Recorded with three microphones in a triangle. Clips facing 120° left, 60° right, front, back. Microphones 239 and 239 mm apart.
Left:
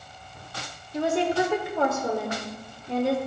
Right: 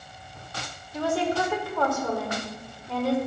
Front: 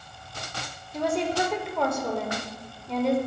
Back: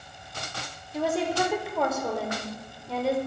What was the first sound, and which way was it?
A woman speaking, 100° left.